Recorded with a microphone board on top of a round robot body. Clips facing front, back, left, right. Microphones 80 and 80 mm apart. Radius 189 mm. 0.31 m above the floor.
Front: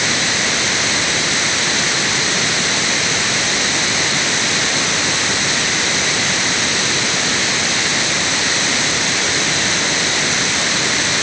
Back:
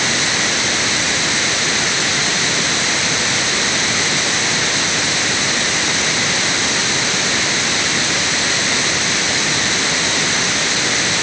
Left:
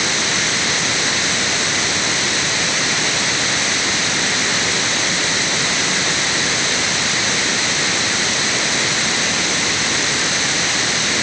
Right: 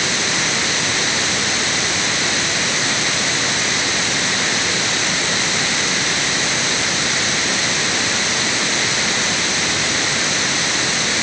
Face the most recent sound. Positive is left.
No sound to turn to.